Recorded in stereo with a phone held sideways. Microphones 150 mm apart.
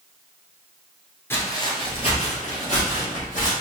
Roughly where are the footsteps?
Centre.